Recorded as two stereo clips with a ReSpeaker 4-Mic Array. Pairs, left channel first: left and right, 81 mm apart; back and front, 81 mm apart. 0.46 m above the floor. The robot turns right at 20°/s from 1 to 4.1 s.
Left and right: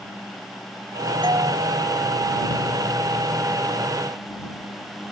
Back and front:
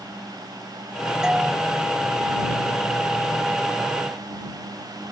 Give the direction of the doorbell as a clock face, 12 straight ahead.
3 o'clock.